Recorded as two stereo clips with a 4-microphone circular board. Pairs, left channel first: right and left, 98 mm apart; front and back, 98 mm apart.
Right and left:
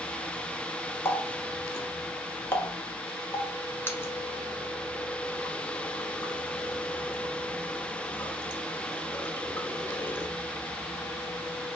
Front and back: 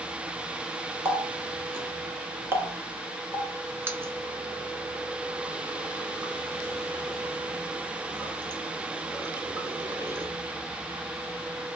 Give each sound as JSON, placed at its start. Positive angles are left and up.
{"t": 1.1, "sound": "a running tap", "azimuth_deg": -135, "distance_m": 0.9}